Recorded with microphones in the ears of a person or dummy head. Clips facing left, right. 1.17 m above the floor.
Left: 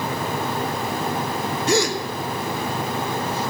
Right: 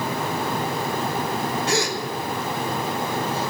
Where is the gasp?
85° left, 1.3 m.